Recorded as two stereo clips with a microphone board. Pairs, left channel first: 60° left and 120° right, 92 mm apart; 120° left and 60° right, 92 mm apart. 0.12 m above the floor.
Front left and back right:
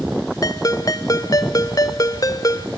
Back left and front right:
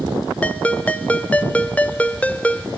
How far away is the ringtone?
About 0.7 m.